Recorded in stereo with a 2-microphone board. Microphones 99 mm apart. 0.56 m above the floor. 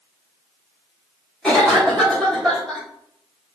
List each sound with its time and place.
1.4 s a cough: 5° left (ahead or behind), 0.9 m